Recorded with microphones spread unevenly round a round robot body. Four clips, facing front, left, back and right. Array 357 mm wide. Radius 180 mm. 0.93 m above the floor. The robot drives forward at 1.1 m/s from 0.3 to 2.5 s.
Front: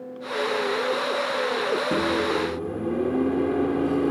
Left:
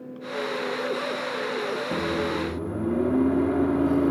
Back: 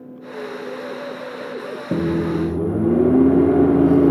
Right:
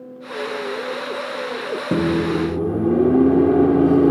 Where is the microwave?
115° right; by 4.1 s 140° right.